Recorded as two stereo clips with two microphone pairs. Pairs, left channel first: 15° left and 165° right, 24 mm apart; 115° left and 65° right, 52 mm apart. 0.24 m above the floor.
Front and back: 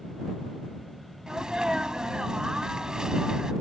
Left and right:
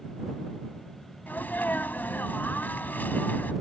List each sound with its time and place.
1.3 s a sneeze: 150° left